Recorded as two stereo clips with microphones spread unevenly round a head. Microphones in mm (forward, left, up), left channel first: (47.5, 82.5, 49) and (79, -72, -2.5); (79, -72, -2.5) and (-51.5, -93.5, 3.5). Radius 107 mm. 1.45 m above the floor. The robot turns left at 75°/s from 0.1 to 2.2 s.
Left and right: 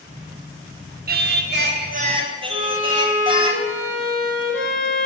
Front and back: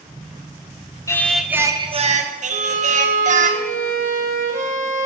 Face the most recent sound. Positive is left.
turn(degrees=-165)